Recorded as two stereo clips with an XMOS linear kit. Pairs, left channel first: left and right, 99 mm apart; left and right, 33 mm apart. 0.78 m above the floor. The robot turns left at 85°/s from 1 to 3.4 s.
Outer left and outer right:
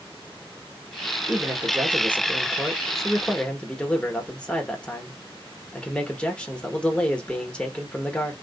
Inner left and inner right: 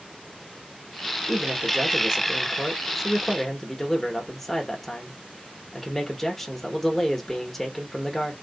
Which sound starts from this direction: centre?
A man speaking, at 1.3 s.